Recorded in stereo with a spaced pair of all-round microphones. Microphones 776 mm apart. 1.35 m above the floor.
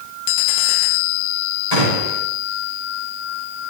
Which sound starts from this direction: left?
A gunshot, at 1.7 s.